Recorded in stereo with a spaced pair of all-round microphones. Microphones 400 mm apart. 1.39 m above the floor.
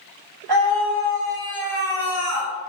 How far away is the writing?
I don't hear writing.